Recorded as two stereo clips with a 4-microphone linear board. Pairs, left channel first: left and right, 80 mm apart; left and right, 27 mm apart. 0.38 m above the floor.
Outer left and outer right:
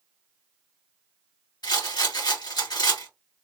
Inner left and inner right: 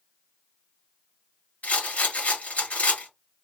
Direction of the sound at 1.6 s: 65° left (ahead or behind).